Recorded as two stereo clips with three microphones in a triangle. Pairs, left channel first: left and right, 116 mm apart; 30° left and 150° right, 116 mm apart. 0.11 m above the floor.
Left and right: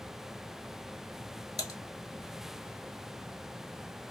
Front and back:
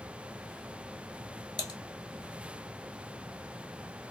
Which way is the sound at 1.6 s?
55° left.